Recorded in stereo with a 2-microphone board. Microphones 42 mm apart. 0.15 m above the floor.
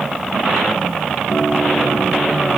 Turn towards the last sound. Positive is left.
turn(degrees=25)  # may be behind; listen again after turning